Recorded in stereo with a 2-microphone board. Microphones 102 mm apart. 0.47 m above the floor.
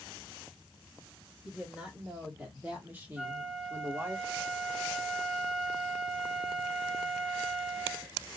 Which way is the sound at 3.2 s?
5° right (ahead or behind).